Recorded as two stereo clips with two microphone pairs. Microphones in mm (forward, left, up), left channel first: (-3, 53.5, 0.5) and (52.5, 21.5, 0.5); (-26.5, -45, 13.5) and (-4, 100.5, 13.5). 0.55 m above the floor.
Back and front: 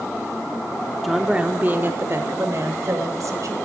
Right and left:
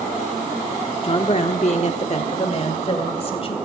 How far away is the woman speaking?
About 0.8 m.